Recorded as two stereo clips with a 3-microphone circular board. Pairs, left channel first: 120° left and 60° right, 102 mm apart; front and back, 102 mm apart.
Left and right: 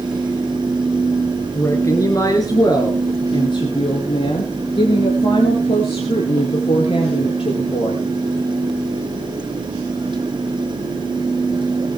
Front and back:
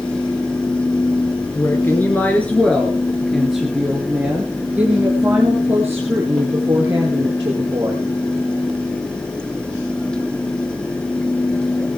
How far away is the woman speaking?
About 2.5 m.